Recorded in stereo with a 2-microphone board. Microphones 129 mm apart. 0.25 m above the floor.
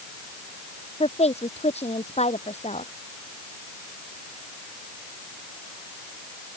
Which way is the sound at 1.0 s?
55° left (ahead or behind).